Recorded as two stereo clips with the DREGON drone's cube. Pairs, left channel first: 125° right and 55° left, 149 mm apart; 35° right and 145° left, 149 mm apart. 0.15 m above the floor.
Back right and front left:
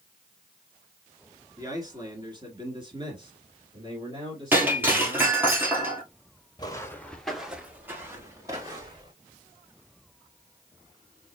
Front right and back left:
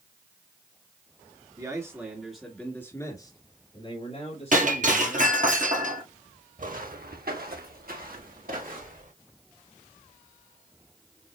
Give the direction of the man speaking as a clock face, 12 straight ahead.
9 o'clock.